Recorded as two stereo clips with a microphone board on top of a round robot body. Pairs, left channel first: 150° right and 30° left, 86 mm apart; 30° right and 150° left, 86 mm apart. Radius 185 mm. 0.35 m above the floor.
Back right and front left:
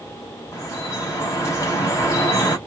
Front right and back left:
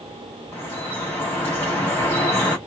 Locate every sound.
0.5 s dripping: 95° right, 3.5 m